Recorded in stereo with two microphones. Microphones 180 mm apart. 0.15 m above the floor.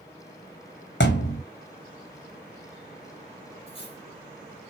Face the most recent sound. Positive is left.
turn(degrees=30)  # may be behind; listen again after turning